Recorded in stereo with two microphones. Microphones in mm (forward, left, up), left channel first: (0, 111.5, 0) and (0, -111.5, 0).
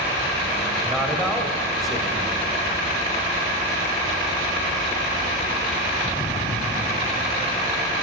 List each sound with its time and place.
0.8 s a man speaking: centre (ahead or behind), 1.1 m